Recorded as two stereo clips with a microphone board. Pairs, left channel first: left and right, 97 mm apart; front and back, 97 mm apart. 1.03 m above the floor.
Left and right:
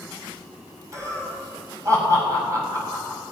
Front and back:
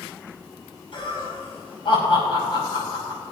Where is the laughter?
35° right, 6 m.